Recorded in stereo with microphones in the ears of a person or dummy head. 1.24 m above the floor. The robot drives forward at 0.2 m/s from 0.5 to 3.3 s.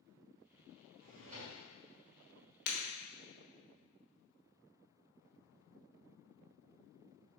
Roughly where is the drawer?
Right.